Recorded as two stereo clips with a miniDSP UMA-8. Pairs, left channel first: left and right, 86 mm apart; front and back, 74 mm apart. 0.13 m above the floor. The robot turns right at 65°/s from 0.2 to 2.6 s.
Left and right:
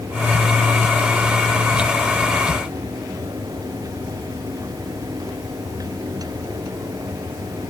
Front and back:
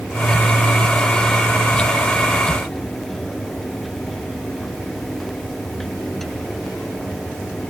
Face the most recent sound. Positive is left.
No sound to turn to.